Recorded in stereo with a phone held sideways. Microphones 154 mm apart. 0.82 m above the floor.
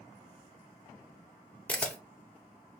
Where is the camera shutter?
10° left (ahead or behind), 0.5 m.